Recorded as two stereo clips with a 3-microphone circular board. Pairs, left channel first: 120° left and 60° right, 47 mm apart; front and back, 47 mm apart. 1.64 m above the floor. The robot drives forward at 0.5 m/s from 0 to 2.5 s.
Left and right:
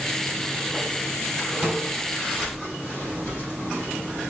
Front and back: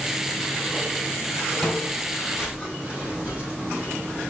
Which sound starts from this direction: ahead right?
Footsteps, at 1.6 s.